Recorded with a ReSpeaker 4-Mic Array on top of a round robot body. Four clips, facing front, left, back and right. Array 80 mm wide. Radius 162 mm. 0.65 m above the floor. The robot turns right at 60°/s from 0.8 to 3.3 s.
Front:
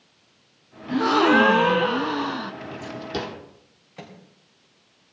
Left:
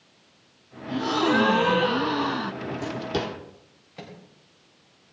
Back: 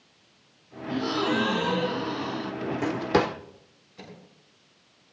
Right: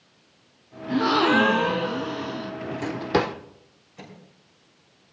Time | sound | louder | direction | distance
0.9 | a gasp | right 3 dB, front 8 dB | 40° right | 0.7 m
2.6 | a drawer | right 1 dB, back 6 dB | 175° right | 0.7 m
4.0 | a microwave | left 2 dB, front 3 dB | 30° left | 5 m